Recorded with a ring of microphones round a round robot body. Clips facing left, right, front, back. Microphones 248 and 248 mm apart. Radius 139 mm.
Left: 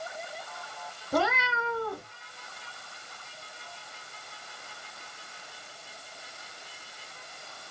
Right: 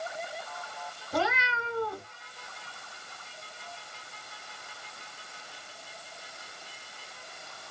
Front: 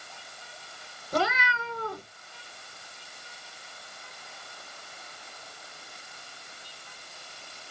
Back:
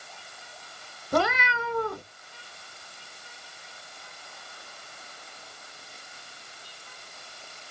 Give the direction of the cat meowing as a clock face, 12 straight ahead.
7 o'clock.